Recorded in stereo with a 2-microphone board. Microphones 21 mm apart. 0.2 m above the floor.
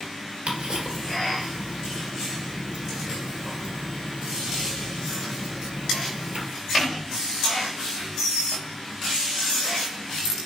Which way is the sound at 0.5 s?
65° right (ahead or behind).